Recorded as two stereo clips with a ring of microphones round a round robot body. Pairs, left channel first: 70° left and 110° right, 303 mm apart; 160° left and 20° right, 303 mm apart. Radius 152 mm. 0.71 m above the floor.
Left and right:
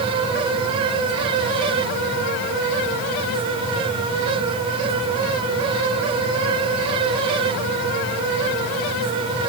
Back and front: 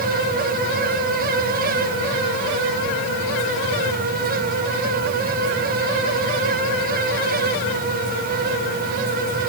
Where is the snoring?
I don't hear snoring.